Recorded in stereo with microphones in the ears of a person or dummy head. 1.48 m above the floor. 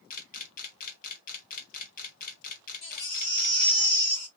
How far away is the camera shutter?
About 1.0 m.